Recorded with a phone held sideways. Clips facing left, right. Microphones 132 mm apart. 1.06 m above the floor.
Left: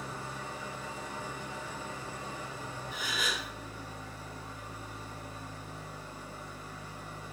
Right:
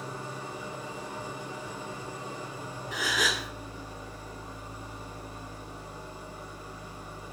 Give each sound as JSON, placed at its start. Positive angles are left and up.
{"t": 0.0, "sound": "an engine running", "side_deg": -15, "distance_m": 4.5}
{"t": 2.9, "sound": "a gasp", "side_deg": -85, "distance_m": 2.0}